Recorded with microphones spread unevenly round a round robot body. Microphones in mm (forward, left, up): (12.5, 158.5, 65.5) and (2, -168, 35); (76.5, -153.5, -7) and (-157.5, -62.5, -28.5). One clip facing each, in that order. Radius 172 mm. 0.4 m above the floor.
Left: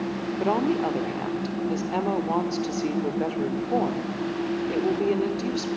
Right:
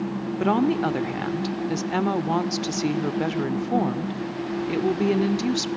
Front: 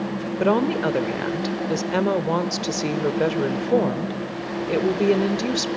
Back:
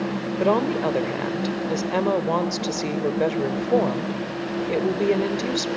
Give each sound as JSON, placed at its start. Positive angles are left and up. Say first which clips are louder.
{"t": 0.4, "sound": "a woman speaking", "louder": "right 3 dB, front 1 dB", "azimuth_deg": -100, "distance_m": 1.1}